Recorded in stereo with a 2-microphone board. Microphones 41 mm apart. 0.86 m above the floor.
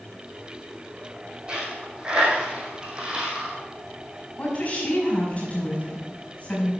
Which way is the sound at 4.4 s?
30° left (ahead or behind).